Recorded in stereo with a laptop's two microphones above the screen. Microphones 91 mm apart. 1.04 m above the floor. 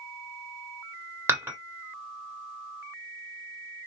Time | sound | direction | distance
1.3 | dishes clattering | 25° right (ahead or behind) | 1.6 m